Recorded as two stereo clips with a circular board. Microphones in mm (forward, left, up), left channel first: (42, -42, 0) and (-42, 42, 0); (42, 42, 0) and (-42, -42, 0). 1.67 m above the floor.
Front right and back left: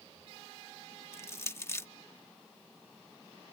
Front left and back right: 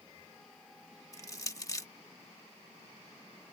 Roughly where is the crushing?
Ahead.